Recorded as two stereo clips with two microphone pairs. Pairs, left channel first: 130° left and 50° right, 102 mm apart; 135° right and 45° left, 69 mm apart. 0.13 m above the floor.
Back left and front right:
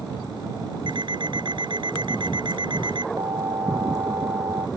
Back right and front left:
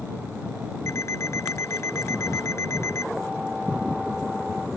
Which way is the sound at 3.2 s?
35° right.